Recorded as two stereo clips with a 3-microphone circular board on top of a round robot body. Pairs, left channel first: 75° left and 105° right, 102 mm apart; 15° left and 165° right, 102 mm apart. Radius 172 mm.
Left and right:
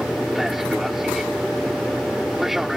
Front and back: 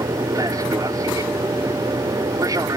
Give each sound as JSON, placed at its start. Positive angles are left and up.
{"t": 0.0, "sound": "an aircraft", "azimuth_deg": 170}